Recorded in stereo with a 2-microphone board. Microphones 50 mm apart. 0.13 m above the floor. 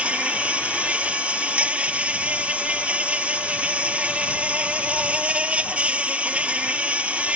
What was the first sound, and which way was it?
An insect, 25° right (ahead or behind).